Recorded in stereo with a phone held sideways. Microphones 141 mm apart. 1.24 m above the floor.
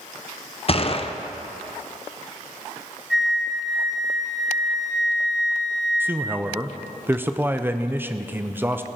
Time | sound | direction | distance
0.7 | a gunshot | 45° left (ahead or behind) | 0.6 m
3.1 | a flute | centre (ahead or behind) | 0.8 m
6.0 | a man speaking | 15° right (ahead or behind) | 0.5 m